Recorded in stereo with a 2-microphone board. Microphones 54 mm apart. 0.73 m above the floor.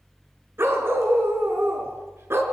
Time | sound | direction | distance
0.6 | a dog barking | 50° right (ahead or behind) | 4 m